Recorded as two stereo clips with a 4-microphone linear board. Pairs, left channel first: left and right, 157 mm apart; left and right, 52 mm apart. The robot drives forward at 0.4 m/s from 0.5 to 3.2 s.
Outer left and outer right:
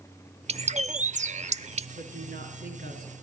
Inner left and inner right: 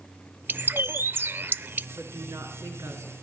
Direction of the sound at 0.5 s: 40° right (ahead or behind).